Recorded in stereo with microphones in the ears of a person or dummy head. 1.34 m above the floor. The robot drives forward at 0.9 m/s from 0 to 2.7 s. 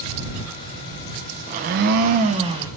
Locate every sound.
1.5 s a blender: 45° right (ahead or behind), 0.6 m; by 2.7 s 25° right (ahead or behind), 0.9 m